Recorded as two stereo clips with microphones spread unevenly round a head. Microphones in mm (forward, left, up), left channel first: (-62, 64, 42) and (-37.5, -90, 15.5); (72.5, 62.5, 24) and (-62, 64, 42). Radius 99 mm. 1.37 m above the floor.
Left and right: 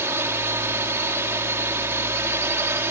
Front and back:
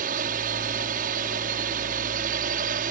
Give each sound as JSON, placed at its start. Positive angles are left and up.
{"t": 0.0, "sound": "a drone", "azimuth_deg": -155}